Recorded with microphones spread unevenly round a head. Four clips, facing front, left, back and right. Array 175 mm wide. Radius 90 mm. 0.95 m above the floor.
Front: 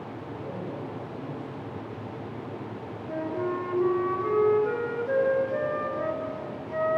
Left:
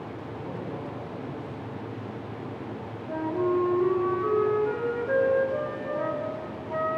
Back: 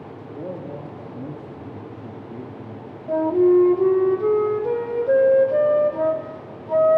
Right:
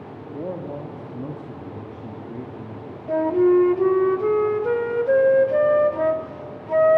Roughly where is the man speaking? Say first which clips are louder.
Right 8 dB, back 5 dB; behind right.